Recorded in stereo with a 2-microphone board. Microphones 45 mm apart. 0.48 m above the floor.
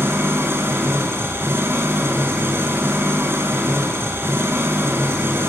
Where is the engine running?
60° right (ahead or behind), 6.5 m.